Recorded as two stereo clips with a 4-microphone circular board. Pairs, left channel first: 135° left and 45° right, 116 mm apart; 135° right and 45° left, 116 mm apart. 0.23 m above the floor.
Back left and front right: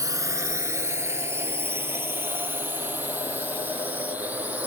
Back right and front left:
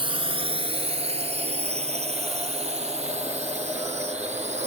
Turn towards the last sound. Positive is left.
turn(degrees=30)